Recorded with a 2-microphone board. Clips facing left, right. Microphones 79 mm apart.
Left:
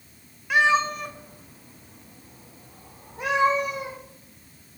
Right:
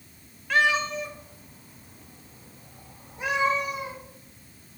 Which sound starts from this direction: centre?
A cat meowing, at 0.5 s.